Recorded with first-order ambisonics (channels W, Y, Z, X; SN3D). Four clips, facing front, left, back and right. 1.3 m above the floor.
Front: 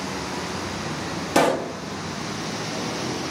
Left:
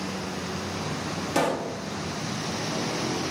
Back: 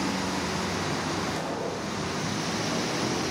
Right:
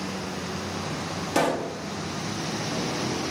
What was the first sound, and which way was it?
A pop, 5° right.